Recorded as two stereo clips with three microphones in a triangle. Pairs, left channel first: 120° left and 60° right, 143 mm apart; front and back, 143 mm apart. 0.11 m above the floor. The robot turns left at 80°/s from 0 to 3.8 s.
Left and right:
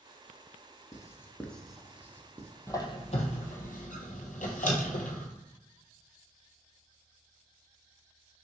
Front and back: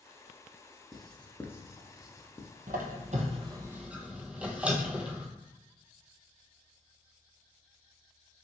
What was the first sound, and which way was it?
Writing, 95° left.